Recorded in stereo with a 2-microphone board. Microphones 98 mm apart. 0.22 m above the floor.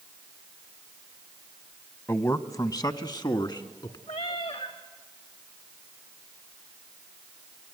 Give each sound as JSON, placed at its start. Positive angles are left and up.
{"t": 2.1, "sound": "a man speaking", "side_deg": 25, "distance_m": 1.0}
{"t": 4.1, "sound": "a cat meowing", "side_deg": 85, "distance_m": 4.0}